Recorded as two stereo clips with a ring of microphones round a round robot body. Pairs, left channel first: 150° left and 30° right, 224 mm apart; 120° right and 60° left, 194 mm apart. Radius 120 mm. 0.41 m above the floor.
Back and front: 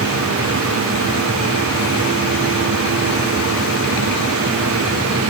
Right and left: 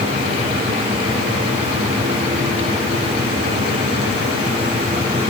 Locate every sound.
Only background noise.